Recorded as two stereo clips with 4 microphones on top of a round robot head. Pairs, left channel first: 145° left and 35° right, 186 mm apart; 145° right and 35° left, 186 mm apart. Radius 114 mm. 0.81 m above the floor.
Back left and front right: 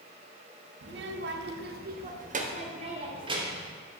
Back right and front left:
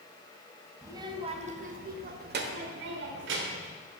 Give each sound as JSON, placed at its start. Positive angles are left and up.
{"t": 0.8, "sound": "a child speaking", "azimuth_deg": -40, "distance_m": 1.0}